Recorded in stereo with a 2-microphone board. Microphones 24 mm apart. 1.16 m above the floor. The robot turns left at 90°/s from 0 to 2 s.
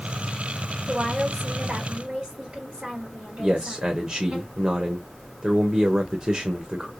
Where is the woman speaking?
15° right, 2.5 m; by 4.4 s 120° right, 2.5 m.